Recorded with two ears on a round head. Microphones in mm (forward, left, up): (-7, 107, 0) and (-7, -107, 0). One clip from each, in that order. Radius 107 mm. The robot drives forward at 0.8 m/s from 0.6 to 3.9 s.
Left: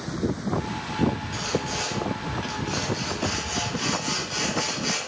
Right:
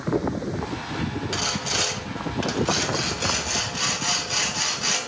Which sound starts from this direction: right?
Sawing, at 1.3 s.